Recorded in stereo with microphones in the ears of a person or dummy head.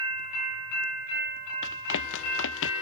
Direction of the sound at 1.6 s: 75° left (ahead or behind).